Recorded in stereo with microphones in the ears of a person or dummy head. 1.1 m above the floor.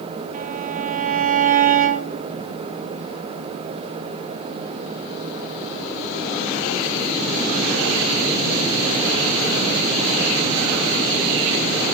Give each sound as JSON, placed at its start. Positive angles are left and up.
{"t": 0.3, "sound": "a violin", "side_deg": -40, "distance_m": 1.1}